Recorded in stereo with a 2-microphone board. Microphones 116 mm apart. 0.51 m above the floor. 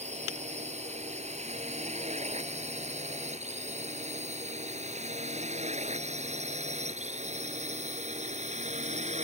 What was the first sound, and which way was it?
A drone, 75° right (ahead or behind).